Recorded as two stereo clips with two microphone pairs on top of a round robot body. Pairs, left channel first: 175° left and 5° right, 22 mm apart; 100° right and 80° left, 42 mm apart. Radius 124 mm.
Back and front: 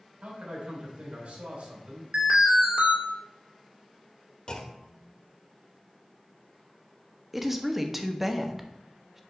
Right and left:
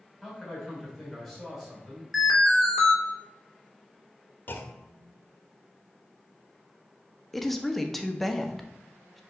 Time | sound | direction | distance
0.2 | a man speaking | 10° right | 4 m
2.1 | an alarm | 10° right | 3 m
4.5 | a clunk | 130° right | 1.2 m
7.3 | a woman speaking | 35° right | 1.2 m